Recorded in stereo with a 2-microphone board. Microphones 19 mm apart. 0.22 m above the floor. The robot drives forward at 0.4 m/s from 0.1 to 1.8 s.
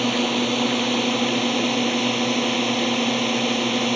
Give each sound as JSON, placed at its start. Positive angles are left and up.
{"t": 0.0, "sound": "a drone", "side_deg": 5}